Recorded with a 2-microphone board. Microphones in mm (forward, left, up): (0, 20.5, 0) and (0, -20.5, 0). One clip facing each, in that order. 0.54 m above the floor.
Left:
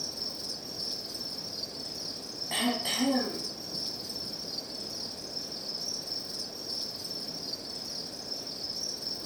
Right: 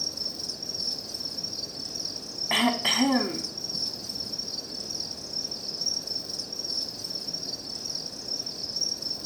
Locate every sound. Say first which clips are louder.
0.0 s an insect: right 3 dB; 25° left (ahead or behind), 1.5 m
2.5 s throat clearing: right 6 dB; 65° right (ahead or behind), 0.8 m